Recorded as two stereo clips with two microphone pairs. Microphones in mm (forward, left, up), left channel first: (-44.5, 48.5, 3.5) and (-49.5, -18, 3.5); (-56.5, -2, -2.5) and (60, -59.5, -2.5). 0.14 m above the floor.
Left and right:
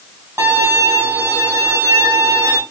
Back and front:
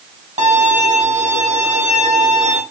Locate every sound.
0.4 s a violin: 45° right, 2 m